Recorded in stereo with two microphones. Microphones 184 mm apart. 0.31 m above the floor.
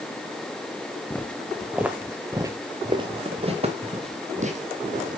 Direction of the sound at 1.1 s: 10° left (ahead or behind).